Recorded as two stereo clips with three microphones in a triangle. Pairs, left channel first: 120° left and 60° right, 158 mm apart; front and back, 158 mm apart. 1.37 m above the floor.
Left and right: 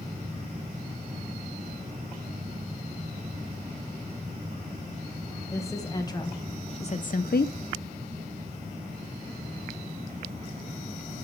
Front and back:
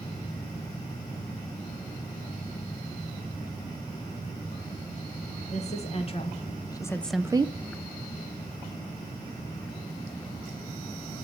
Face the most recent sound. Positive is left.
turn(degrees=130)